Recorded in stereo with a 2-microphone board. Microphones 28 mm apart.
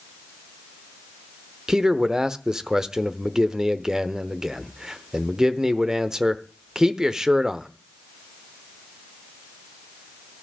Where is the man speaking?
25° right (ahead or behind), 0.9 m.